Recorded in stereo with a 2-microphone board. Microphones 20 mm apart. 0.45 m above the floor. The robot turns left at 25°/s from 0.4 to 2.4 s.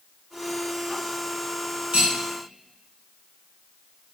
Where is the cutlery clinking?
70° right (ahead or behind), 1.6 m; by 2.1 s 65° right (ahead or behind), 1.6 m.